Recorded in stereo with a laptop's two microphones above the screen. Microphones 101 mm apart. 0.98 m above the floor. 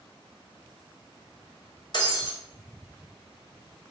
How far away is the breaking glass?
About 1.1 m.